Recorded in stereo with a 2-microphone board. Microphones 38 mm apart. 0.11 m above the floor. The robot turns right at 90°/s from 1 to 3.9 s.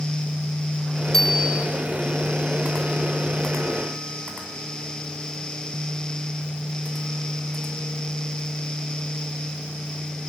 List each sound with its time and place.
1.1 s a bicycle bell: 160° left, 2.5 m; by 1.7 s 155° right, 2.5 m